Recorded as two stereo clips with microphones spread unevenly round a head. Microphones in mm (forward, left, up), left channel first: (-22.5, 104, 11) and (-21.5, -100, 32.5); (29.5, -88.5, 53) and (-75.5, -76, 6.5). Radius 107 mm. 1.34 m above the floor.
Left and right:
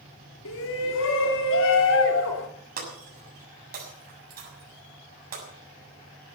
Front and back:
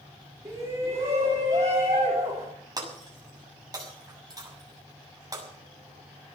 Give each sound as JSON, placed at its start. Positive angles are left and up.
{"t": 0.5, "sound": "a shout", "azimuth_deg": 100, "distance_m": 3.5}
{"t": 2.8, "sound": "breaking glass", "azimuth_deg": -130, "distance_m": 7.0}